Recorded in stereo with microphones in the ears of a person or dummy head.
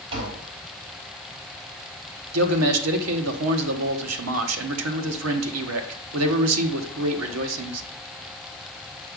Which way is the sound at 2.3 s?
90° right.